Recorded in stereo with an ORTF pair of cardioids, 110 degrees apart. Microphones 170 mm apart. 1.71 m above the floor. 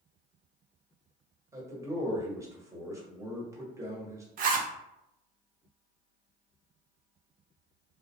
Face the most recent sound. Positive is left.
turn(degrees=-55)